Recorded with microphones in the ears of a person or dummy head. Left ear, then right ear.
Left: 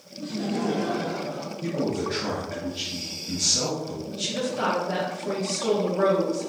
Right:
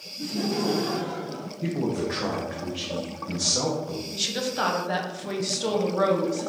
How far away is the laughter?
About 0.5 m.